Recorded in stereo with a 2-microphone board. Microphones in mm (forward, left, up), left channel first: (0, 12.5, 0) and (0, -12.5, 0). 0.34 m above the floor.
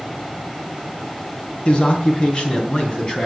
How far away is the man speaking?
About 3 m.